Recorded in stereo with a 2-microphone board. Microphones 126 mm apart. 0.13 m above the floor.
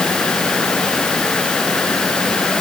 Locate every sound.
Only background noise.